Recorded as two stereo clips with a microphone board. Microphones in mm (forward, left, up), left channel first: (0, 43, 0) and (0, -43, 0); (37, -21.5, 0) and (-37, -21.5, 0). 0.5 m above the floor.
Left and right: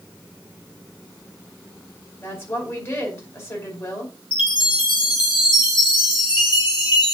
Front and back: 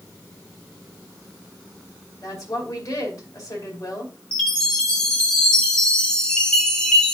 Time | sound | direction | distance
2.2 | a woman speaking | 35° left | 3.5 m
4.3 | a chime | 80° left | 2.5 m